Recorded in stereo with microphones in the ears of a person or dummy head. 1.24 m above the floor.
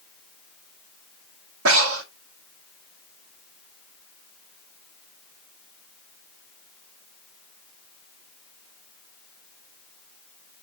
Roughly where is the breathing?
Right.